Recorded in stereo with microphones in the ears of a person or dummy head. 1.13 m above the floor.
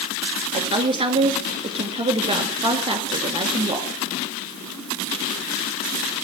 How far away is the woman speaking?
About 2 m.